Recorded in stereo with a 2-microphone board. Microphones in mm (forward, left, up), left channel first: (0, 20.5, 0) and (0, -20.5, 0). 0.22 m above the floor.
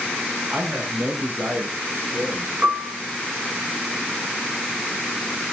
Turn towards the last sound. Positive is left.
turn(degrees=-50)  # may be behind; listen again after turning